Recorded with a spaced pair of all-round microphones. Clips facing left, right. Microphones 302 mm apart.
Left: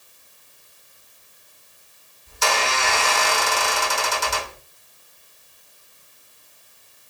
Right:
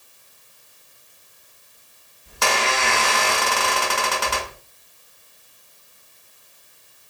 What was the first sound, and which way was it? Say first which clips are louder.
A squeak: right 1 dB; 70° right (ahead or behind).